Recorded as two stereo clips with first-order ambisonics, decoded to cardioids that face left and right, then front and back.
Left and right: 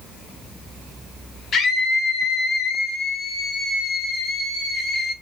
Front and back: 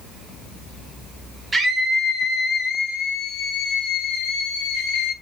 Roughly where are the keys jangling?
I don't hear keys jangling.